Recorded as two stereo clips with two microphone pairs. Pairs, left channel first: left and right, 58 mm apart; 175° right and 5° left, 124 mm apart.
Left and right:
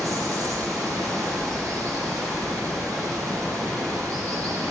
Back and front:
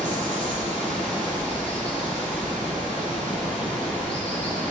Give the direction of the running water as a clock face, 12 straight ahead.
3 o'clock.